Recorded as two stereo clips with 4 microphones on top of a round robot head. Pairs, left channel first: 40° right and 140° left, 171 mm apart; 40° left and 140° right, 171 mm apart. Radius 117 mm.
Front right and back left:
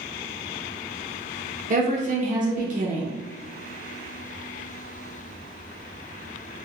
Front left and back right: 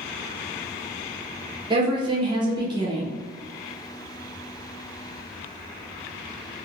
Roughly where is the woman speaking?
Behind.